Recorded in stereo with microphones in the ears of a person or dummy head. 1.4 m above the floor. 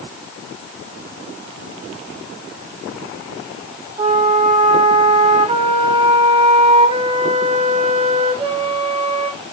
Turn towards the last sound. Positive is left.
turn(degrees=-40)  # may be behind; listen again after turning